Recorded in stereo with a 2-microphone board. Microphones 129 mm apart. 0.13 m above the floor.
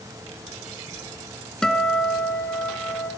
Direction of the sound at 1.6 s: 5° left (ahead or behind).